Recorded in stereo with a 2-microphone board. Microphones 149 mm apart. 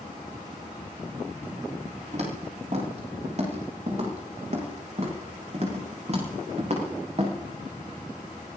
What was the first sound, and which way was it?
Footsteps, 50° right (ahead or behind).